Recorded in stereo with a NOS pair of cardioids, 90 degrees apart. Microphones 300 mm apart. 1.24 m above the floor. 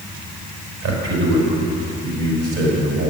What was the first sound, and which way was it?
A man speaking, 70° right.